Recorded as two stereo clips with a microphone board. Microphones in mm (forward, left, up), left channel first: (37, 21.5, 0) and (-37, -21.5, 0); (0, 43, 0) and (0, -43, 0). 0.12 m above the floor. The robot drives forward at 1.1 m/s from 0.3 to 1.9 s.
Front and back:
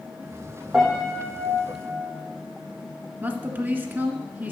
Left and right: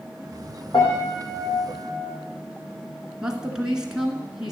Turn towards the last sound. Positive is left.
turn(degrees=-160)